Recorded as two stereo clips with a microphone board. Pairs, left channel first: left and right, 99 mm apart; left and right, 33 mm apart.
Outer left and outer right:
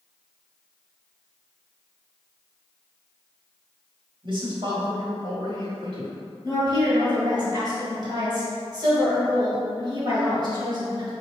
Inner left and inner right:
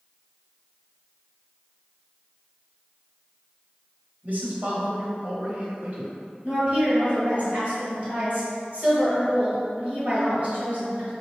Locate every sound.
4.2 s a man speaking: 50° right (ahead or behind), 1.3 m
6.4 s a woman speaking: 40° right (ahead or behind), 1.7 m